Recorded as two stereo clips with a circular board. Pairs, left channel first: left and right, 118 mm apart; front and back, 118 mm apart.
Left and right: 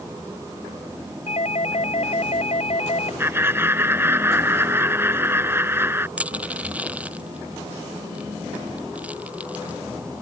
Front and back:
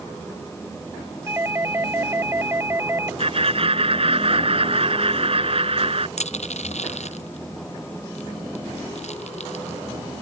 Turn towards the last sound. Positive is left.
turn(degrees=-10)